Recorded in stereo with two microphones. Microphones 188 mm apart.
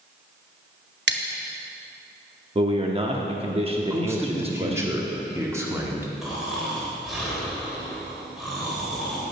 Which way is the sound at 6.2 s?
Centre (ahead or behind).